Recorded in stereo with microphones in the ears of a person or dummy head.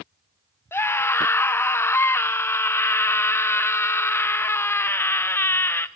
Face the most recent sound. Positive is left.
turn(degrees=10)  # may be behind; listen again after turning